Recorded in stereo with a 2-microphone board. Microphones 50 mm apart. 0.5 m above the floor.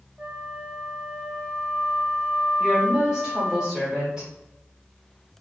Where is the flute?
20° right (ahead or behind), 1.6 m.